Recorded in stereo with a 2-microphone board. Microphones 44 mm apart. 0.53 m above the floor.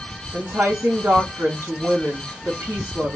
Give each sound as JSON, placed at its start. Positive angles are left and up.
{"t": 0.3, "sound": "a woman speaking", "side_deg": -75, "distance_m": 2.5}